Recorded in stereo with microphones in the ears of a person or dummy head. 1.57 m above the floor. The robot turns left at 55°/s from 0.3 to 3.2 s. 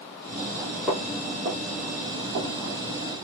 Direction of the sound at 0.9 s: 5° right (ahead or behind).